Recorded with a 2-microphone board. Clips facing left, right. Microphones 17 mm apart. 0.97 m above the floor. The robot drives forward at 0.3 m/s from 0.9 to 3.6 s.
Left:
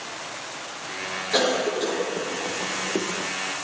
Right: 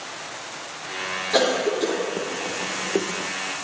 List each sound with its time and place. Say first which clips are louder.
1.3 s a cough: right 1 dB; 35° right (ahead or behind), 0.8 m; by 3.3 s 70° right (ahead or behind), 0.5 m